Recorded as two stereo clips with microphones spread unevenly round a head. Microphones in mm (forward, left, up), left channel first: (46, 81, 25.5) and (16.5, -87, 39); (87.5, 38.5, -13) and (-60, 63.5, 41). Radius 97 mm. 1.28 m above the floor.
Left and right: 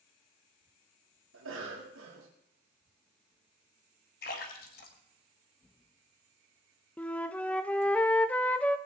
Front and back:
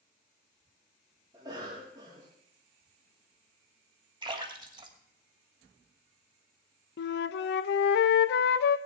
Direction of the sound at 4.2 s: 125° left.